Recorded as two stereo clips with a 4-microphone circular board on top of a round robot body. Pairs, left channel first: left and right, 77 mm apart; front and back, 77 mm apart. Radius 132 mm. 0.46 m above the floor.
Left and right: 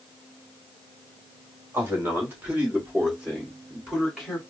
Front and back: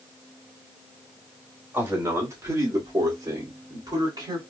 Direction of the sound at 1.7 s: 135° right.